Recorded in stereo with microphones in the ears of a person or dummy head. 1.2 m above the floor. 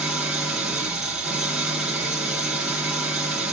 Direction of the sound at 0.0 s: 5° right (ahead or behind).